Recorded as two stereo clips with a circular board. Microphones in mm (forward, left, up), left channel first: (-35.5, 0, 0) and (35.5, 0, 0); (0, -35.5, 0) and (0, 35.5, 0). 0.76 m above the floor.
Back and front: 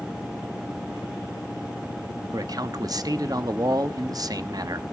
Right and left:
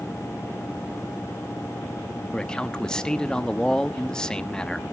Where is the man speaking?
10° right, 0.8 m.